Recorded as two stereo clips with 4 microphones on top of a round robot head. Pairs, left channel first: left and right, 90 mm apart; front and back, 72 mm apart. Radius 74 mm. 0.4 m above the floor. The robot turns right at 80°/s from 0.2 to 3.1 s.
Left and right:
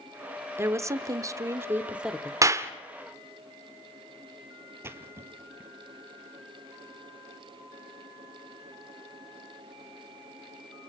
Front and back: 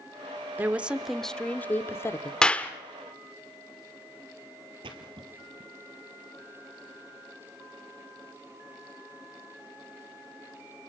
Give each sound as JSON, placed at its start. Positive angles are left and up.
{"t": 0.6, "sound": "a woman speaking", "azimuth_deg": -135, "distance_m": 1.0}
{"t": 2.4, "sound": "a clap", "azimuth_deg": -70, "distance_m": 1.2}
{"t": 4.8, "sound": "a splash", "azimuth_deg": -150, "distance_m": 2.0}